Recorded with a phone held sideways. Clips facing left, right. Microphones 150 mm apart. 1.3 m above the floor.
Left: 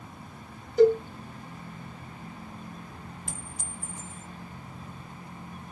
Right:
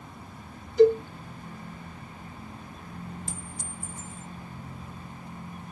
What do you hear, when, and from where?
0.8 s a cowbell: 45° left (ahead or behind), 1.4 m
3.3 s a clink: 70° left (ahead or behind), 1.2 m